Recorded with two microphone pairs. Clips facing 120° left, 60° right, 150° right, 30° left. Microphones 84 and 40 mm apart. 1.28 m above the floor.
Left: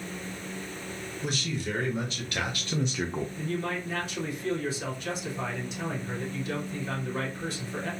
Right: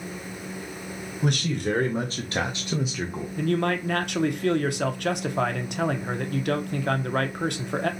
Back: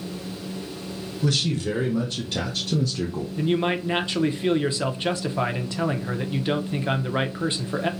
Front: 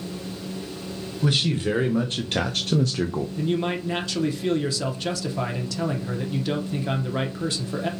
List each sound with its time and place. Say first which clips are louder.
1.2 s a man speaking: right 7 dB, front 1 dB; 30° right, 1.1 m; by 3.3 s 50° left, 0.6 m
3.4 s a man speaking: right 12 dB, back 4 dB; 85° right, 0.7 m